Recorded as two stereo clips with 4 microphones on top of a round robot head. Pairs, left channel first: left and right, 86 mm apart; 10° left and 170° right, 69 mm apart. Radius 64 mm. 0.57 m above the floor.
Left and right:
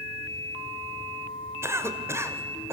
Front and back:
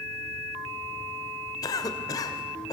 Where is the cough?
30° right, 2 m.